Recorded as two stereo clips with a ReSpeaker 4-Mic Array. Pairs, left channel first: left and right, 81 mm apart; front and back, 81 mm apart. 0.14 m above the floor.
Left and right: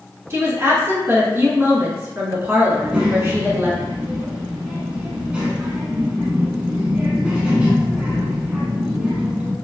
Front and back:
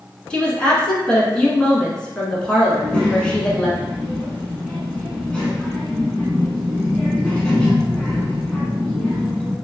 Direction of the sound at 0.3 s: 70° right.